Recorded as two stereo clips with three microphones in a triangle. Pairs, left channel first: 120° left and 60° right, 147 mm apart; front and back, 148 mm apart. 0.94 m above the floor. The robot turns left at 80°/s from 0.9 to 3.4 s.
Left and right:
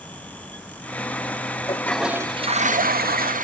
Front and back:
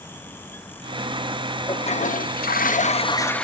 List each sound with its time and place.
1.7 s a toilet flushing: 55° left, 0.6 m; by 3.4 s 85° right, 0.6 m